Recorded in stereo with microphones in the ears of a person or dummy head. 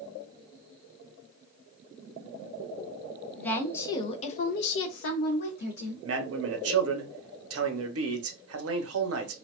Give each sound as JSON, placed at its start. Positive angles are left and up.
{"t": 3.4, "sound": "a woman speaking", "side_deg": 10, "distance_m": 0.9}
{"t": 6.0, "sound": "a man speaking", "side_deg": -70, "distance_m": 0.7}